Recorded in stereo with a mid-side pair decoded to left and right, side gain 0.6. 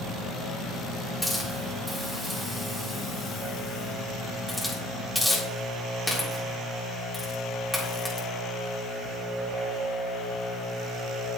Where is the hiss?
Straight ahead, 4 m.